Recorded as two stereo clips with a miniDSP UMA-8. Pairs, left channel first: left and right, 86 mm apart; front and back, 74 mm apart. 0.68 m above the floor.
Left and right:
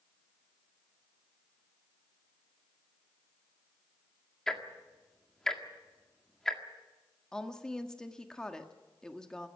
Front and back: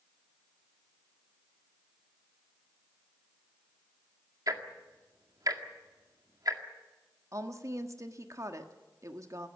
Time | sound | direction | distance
4.5 | ticking | 175° left | 1.8 m
7.3 | a woman speaking | 170° left | 1.5 m